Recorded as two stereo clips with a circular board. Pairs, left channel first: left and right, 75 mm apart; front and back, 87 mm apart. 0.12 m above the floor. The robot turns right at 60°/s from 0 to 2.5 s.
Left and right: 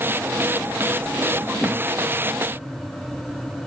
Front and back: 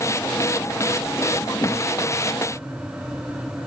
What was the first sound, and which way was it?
A whoosh, 20° left.